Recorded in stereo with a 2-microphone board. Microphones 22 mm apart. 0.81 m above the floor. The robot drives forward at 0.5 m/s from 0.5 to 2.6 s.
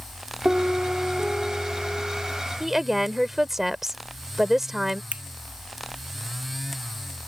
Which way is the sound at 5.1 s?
75° right (ahead or behind).